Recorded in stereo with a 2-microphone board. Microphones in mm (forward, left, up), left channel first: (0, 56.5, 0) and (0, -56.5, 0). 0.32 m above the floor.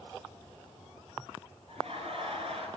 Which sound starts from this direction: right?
Laughter, at 1.7 s.